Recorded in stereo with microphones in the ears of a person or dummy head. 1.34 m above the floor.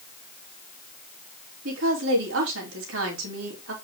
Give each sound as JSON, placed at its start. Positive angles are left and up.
{"t": 1.6, "sound": "a woman speaking", "side_deg": -85, "distance_m": 4.0}